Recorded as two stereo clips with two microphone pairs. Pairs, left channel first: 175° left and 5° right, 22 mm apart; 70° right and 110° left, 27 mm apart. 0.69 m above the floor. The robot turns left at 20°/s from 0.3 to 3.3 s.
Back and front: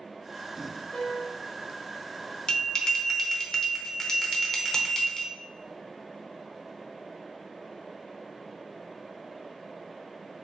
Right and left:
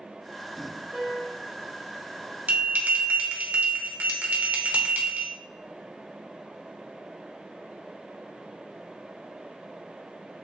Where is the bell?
120° left, 0.7 m; by 5.3 s 105° left, 0.7 m.